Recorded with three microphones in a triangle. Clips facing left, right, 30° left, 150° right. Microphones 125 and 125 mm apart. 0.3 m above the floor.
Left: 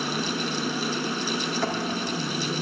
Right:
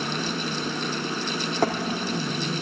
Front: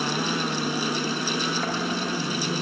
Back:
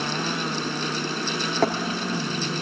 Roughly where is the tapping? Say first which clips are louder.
Right 7 dB, back 7 dB; behind right.